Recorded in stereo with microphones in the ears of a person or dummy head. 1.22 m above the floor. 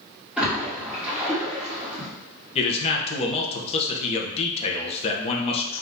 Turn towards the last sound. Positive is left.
turn(degrees=35)  # may be behind; listen again after turning